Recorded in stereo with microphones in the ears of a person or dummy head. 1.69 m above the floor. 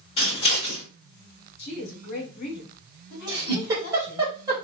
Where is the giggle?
15° right (ahead or behind), 1.4 m.